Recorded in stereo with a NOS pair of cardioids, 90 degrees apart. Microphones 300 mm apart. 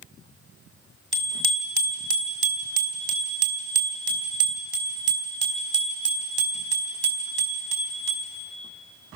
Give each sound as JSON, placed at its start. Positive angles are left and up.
{"t": 1.1, "sound": "a bicycle bell", "azimuth_deg": -40, "distance_m": 2.5}